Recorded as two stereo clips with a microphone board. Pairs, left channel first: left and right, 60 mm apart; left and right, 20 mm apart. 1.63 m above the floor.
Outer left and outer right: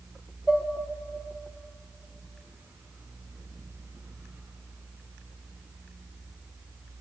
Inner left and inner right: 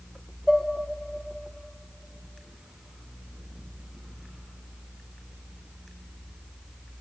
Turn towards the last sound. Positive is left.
turn(degrees=-5)  # may be behind; listen again after turning